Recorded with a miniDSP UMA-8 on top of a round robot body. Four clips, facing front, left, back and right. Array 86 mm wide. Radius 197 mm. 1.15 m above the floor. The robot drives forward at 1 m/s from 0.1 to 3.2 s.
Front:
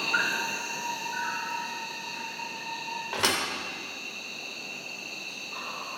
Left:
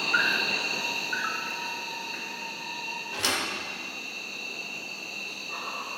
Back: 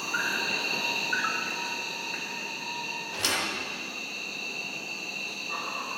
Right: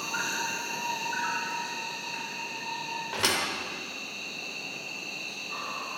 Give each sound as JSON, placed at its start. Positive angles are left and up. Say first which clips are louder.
{"t": 0.0, "sound": "an insect", "louder": "left 6 dB, front 2 dB", "azimuth_deg": 60, "distance_m": 0.8}
{"t": 3.1, "sound": "a thud", "louder": "right 1 dB, front 4 dB", "azimuth_deg": -25, "distance_m": 1.0}